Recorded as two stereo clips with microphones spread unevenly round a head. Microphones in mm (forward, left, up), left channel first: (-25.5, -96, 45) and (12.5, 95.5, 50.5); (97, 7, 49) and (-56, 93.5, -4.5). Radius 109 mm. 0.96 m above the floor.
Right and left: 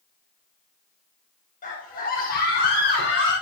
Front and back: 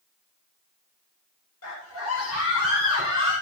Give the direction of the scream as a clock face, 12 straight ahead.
2 o'clock.